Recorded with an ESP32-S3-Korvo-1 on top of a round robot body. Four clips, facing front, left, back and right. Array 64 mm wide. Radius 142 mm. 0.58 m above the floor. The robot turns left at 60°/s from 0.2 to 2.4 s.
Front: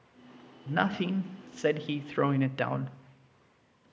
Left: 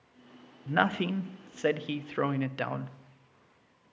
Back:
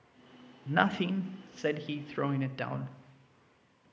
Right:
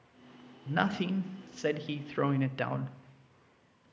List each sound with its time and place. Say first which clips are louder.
0.7 s a man speaking: left 3 dB, back 1 dB; 120° left, 0.7 m; by 3.0 s 20° left, 0.7 m